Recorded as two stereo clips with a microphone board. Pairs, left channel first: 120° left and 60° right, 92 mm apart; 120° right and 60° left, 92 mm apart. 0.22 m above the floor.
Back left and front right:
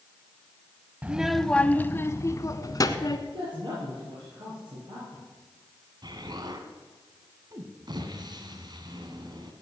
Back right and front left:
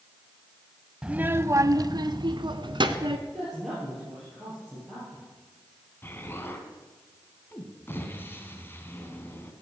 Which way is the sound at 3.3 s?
30° right.